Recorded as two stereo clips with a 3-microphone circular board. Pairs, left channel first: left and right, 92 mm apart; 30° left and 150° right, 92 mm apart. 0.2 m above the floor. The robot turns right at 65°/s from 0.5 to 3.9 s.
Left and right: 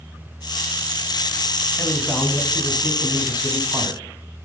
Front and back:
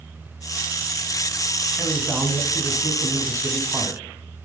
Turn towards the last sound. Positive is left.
turn(degrees=-115)